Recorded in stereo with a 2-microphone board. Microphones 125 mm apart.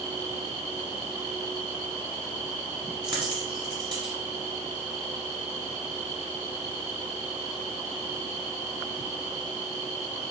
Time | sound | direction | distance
3.0 | a dropped coin | 40° right (ahead or behind) | 1.0 m